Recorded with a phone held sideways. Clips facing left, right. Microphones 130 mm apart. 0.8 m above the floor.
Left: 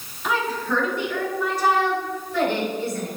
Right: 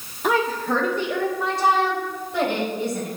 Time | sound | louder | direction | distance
0.2 | a woman speaking | right 3 dB | 50° right (ahead or behind) | 1.8 m